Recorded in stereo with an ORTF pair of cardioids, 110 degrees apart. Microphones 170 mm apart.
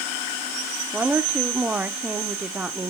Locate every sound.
0.9 s a woman speaking: 10° right, 0.8 m